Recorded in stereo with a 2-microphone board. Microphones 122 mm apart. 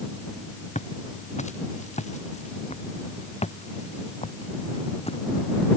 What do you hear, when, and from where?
0.8 s footsteps: 80° left; by 5.2 s 55° left (ahead or behind)